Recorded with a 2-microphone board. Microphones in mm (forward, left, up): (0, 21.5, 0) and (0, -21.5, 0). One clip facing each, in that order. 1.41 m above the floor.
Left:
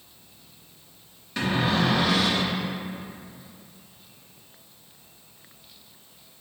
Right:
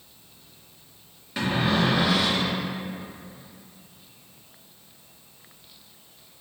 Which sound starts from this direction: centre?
A cupboard door, at 1.4 s.